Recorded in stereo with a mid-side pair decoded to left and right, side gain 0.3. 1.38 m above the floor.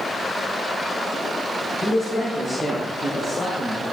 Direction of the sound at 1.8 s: 65° left.